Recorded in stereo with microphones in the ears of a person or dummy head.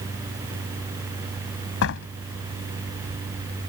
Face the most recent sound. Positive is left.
turn(degrees=65)  # may be behind; listen again after turning